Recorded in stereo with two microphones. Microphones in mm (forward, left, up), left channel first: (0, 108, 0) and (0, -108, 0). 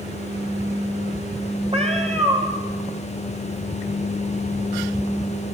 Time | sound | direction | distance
1.7 | a cat meowing | 30° right (ahead or behind) | 3 m